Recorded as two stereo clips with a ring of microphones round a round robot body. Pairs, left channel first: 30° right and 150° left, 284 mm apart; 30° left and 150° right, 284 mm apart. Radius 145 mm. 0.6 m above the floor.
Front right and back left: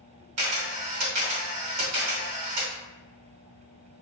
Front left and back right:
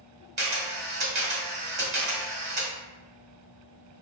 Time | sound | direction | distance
0.4 | a camera shutter | 155° left | 1.8 m